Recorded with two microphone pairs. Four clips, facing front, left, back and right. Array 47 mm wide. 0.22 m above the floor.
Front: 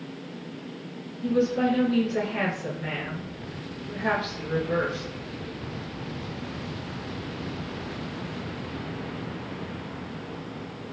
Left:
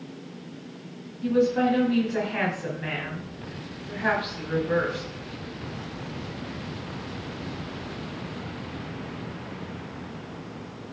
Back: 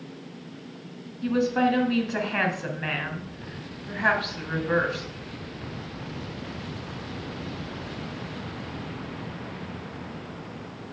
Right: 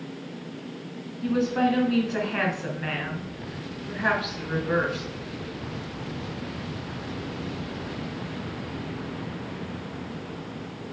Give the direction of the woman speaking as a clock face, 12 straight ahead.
5 o'clock.